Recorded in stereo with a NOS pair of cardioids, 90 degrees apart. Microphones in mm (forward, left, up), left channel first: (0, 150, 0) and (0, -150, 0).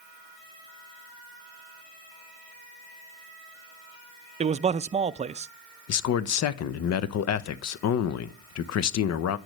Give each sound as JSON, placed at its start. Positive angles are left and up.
{"t": 4.4, "sound": "a man speaking", "azimuth_deg": -25, "distance_m": 0.6}
{"t": 5.9, "sound": "a man speaking", "azimuth_deg": 65, "distance_m": 0.8}